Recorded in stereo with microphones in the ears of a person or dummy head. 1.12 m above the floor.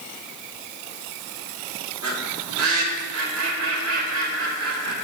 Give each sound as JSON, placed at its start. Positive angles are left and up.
{"t": 2.0, "sound": "a bird", "side_deg": -70, "distance_m": 1.7}